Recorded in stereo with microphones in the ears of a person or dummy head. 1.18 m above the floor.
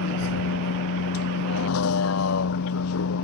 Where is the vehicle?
80° left.